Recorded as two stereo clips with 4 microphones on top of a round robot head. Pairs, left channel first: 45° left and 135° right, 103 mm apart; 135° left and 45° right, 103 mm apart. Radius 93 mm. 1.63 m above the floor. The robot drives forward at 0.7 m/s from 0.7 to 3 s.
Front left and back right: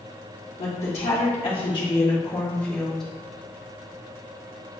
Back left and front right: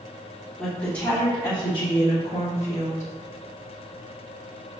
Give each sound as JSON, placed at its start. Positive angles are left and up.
{"t": 0.6, "sound": "a woman speaking", "azimuth_deg": 55, "distance_m": 1.3}